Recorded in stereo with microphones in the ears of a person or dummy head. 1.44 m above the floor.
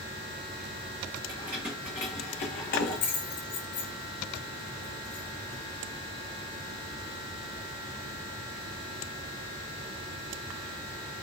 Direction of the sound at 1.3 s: 20° right (ahead or behind).